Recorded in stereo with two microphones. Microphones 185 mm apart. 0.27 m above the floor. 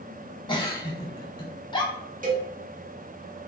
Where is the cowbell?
45° right (ahead or behind), 0.7 m.